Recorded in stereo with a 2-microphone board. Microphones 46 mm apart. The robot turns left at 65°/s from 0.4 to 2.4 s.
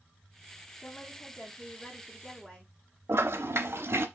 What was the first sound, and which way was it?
A woman speaking, 115° left.